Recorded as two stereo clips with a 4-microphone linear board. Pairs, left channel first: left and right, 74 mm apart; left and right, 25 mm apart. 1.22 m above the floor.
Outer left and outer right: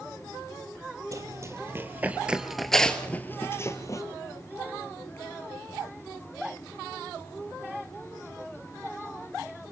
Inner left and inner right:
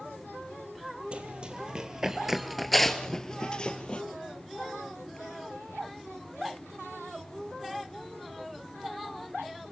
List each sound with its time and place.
1.1 s running footsteps: 45° right (ahead or behind), 2.5 m; by 4.0 s 45° left (ahead or behind), 2 m